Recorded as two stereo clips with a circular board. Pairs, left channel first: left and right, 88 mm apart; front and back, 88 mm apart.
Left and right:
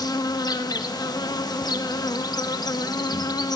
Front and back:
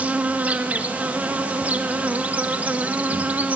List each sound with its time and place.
0.0 s an insect: 110° left, 1.1 m